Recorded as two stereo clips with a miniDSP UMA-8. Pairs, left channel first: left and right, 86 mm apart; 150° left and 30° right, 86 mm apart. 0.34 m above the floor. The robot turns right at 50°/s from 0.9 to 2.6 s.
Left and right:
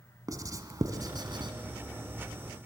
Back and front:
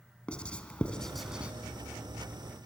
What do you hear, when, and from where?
0.3 s writing: 135° right, 2.5 m; by 1.5 s 105° right, 2.5 m